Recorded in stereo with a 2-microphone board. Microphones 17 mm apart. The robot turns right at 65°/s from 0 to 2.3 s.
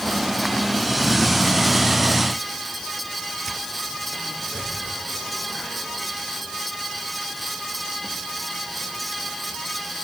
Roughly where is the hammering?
I don't hear hammering.